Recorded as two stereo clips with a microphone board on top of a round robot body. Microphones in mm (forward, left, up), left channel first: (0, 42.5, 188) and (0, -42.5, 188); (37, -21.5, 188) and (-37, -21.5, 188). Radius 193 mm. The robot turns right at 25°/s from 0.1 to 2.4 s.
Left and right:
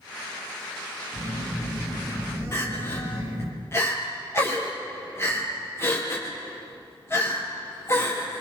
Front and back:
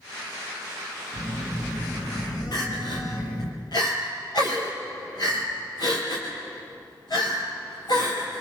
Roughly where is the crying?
Ahead left.